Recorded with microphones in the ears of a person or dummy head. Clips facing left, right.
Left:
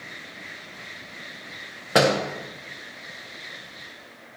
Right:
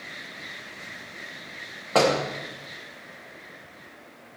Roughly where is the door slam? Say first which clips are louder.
Left 1 dB; centre.